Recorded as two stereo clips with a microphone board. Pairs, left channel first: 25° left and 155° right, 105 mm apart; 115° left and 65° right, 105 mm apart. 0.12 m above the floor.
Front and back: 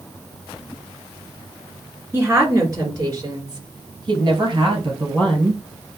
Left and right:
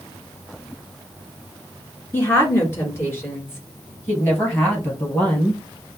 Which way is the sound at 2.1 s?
155° left.